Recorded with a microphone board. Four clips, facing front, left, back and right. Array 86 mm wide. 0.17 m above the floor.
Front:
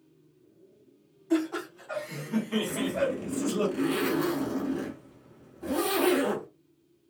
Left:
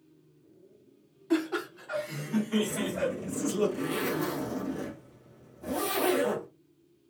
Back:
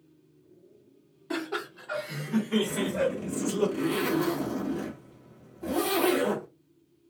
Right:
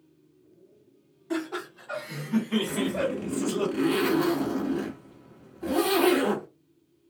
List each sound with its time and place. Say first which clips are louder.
1.3 s laughter: left 3 dB, front 5 dB; 170° left, 1.3 m; by 3.7 s 55° right, 1.5 m
2.7 s a zipper: right 3 dB, even; 80° right, 0.9 m